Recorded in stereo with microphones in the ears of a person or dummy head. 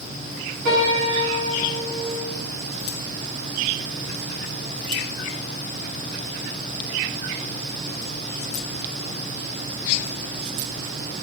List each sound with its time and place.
0.7 s a piano: 70° right (ahead or behind), 3.5 m